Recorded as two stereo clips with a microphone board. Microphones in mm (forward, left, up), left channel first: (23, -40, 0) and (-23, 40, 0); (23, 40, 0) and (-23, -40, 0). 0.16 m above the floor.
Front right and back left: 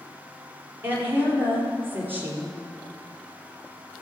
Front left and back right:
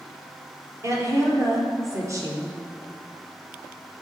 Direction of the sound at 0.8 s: 175° right.